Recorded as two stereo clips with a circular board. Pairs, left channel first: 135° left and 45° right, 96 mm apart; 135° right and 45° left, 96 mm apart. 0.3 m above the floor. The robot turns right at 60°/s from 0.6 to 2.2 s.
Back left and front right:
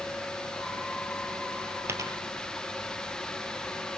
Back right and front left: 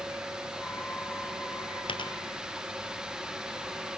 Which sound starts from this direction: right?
A dropped coin, at 1.9 s.